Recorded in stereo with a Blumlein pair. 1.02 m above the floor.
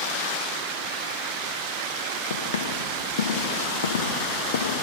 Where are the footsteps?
60° left, 7 m.